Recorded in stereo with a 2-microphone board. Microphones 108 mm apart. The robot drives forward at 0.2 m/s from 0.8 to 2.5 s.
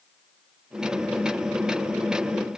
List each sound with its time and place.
Only background noise.